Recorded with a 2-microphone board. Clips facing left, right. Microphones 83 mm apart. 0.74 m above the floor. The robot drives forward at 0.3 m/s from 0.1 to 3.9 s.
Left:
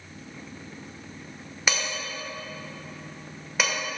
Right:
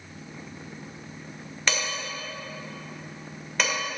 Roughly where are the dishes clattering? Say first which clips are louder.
Even; centre.